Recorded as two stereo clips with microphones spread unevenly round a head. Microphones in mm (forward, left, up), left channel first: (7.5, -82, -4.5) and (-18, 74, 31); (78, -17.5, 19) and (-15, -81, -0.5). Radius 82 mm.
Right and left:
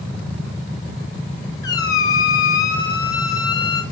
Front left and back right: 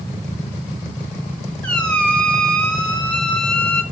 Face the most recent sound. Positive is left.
turn(degrees=-5)